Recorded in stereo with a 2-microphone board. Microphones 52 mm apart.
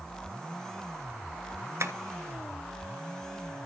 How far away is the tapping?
About 0.9 m.